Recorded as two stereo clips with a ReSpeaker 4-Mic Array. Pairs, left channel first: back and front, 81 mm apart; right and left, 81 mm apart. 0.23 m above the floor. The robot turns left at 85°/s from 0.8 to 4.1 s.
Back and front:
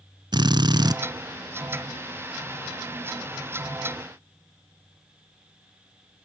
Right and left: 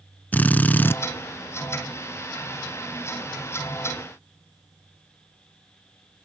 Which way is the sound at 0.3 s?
25° right.